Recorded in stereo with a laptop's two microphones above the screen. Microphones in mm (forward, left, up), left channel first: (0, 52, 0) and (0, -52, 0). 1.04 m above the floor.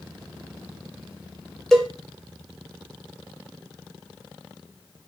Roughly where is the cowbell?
Centre.